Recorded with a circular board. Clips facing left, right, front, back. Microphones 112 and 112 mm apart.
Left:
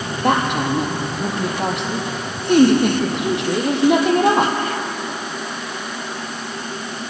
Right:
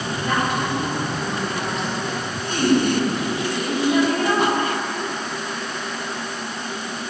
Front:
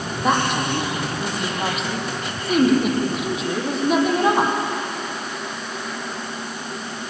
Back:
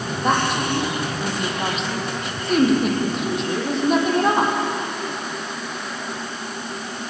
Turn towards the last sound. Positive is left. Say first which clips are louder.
# left 5 dB, even
turn(degrees=85)